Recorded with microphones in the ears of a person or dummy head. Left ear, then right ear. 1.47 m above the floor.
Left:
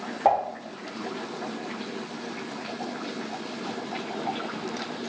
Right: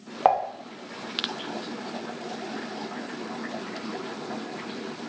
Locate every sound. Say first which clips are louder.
0.2 s dishes clattering: right 1 dB; 55° right (ahead or behind), 0.8 m